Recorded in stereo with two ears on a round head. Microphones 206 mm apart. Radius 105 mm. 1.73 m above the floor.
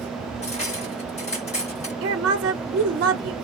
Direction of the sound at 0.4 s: 30° left (ahead or behind).